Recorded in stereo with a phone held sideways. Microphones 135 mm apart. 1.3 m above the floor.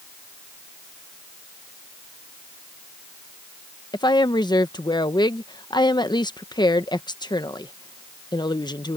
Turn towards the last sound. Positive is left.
turn(degrees=30)  # may be behind; listen again after turning